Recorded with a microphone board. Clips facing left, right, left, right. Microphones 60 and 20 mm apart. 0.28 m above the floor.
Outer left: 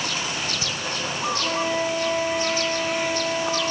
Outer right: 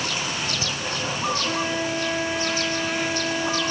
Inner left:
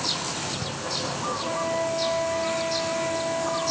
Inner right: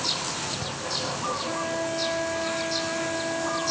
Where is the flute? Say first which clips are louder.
Outer left 1 dB, inner left 2 dB; 35° left (ahead or behind), 1.8 m.